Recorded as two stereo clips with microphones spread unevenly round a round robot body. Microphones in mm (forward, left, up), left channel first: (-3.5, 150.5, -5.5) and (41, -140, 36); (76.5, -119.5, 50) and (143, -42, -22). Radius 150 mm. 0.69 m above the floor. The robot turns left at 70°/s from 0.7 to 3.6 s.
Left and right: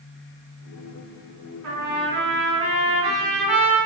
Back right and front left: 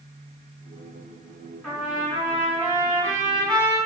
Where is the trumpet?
55° right, 1.7 m; by 3.8 s 170° left, 1.7 m.